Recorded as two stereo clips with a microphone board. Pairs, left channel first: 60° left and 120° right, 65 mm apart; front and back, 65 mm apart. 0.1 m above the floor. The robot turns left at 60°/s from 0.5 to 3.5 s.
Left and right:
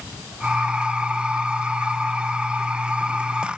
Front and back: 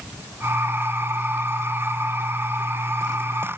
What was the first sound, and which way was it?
Only background noise.